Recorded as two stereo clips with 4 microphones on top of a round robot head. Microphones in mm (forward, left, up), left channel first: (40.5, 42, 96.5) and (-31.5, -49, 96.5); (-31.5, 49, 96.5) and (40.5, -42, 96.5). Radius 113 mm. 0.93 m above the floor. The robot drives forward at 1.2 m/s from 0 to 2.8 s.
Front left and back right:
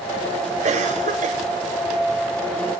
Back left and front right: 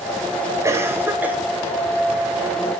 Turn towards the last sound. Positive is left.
turn(degrees=-145)